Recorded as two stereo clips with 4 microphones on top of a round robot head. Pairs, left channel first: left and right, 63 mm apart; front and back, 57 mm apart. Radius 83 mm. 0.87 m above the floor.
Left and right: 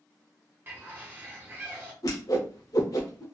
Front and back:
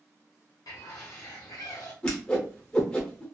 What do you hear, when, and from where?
0.7 s a bird: 30° right, 0.7 m
2.0 s a whoosh: 70° left, 0.6 m